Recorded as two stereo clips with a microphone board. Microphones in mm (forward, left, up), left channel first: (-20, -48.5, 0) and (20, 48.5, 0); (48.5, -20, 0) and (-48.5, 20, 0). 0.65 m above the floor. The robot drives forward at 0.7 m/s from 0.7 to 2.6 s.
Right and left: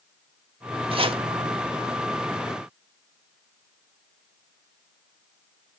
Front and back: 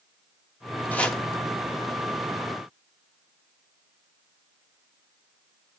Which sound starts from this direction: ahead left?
Chopping, at 0.9 s.